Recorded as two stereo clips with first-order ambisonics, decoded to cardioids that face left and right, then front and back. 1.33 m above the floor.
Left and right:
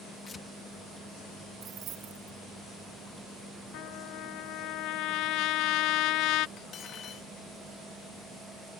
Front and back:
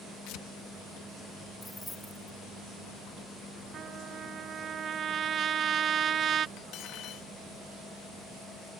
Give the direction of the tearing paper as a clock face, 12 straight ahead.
11 o'clock.